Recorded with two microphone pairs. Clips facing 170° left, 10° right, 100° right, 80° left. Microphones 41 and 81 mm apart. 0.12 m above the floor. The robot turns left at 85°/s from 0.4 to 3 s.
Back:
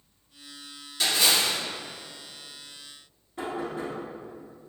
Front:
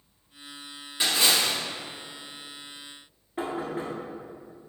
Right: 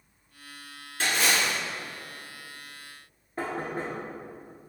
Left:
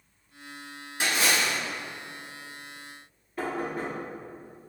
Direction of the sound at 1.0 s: 20° left.